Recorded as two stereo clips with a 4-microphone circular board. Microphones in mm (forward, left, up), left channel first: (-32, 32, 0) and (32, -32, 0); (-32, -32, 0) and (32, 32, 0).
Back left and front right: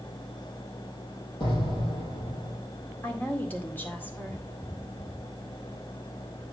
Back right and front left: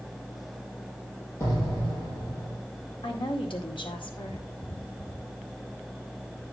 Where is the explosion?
165° left, 5 m.